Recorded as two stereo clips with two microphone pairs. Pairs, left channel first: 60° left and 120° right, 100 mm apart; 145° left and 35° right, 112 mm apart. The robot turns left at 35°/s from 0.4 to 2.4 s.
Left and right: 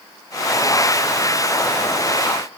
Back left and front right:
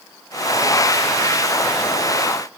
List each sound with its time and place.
Only background noise.